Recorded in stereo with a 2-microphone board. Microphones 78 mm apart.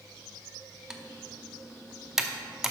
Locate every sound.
0.9 s typing on a keyboard: 5° right (ahead or behind), 0.7 m